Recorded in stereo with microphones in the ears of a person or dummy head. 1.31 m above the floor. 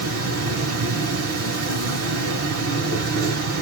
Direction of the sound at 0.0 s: 55° right (ahead or behind).